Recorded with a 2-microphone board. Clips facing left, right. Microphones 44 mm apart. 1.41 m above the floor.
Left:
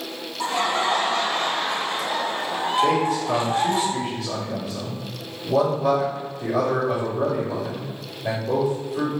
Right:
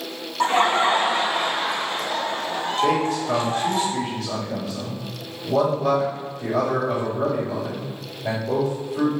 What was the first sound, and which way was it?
Laughter, 45° right (ahead or behind).